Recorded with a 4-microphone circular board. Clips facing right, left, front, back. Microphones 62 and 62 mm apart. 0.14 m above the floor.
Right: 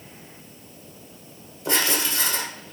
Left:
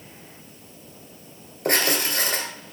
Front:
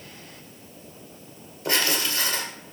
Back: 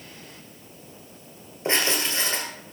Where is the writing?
120° left, 2 m.